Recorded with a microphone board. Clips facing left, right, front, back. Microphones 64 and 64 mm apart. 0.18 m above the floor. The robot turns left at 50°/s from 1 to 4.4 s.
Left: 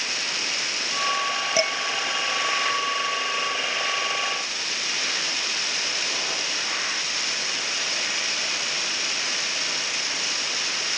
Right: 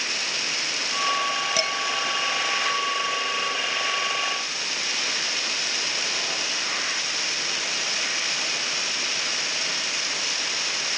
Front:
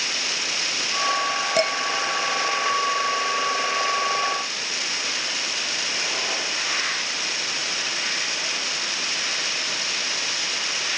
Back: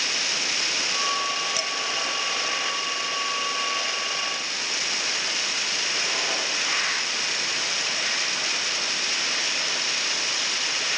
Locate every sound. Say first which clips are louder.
1.6 s dishes clattering: left 3 dB, front 9 dB; 30° left; by 1.8 s 20° left